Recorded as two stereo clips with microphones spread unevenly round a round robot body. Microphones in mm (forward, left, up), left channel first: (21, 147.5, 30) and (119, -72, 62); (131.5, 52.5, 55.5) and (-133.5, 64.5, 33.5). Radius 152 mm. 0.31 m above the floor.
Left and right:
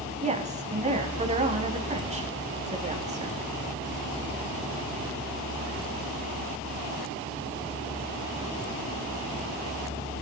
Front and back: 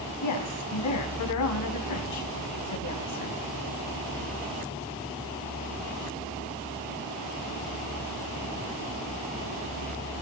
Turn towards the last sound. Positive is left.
turn(degrees=0)